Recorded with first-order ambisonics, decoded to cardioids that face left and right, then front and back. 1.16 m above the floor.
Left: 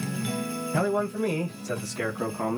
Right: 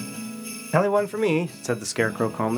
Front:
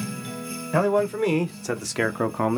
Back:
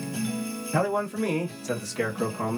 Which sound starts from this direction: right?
A man speaking, at 0.7 s.